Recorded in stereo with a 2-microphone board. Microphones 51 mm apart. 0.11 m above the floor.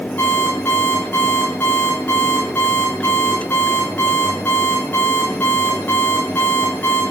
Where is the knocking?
No knocking in this recording.